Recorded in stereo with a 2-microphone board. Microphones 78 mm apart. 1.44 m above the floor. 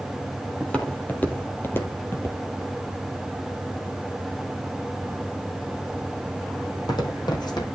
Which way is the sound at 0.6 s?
15° left (ahead or behind).